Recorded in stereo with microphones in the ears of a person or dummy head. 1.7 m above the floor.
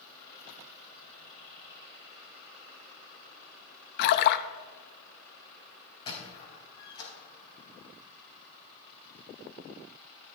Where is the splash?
60° left (ahead or behind), 0.6 m.